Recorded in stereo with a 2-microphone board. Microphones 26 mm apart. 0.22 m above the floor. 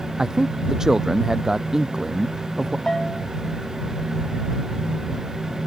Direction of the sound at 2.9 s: 25° left (ahead or behind).